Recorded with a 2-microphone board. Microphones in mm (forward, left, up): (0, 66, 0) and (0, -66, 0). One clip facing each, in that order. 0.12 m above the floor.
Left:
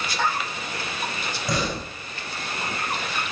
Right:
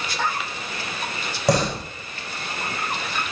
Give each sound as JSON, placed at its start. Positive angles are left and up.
{"t": 1.5, "sound": "a door slam", "side_deg": -75, "distance_m": 4.5}